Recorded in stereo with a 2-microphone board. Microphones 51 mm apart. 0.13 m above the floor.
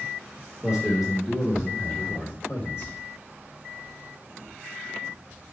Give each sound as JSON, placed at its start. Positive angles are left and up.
{"t": 0.6, "sound": "a man speaking", "side_deg": -10, "distance_m": 3.5}